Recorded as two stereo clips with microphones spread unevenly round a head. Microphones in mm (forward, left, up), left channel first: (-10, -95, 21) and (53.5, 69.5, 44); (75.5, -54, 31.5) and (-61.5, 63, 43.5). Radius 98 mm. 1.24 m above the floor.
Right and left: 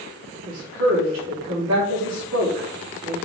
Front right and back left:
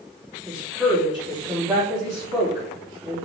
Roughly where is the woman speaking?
Ahead left.